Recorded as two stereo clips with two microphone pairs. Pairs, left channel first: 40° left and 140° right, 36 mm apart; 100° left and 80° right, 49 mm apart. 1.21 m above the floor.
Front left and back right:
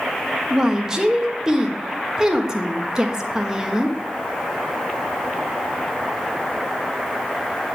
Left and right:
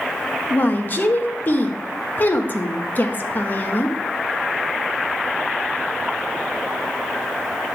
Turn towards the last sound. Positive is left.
turn(degrees=150)